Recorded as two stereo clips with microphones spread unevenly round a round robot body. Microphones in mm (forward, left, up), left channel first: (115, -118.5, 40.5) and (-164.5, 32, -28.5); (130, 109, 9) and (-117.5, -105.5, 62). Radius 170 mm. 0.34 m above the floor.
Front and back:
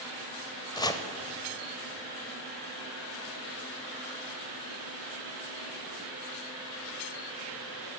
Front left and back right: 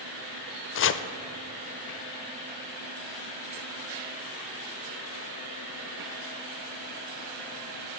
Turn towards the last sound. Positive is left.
turn(degrees=60)